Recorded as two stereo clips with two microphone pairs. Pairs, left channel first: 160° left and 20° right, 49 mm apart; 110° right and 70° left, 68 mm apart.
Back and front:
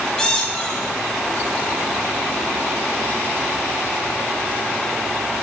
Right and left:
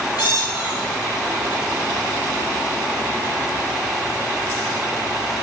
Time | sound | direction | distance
0.2 | a squeak | 120° right | 1.9 m